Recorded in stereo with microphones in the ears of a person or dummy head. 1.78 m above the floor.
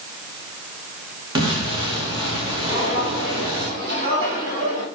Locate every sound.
1.4 s an explosion: 30° right (ahead or behind), 2.5 m
2.7 s footsteps: 25° right (ahead or behind), 3 m; by 4.8 s 30° right (ahead or behind), 4 m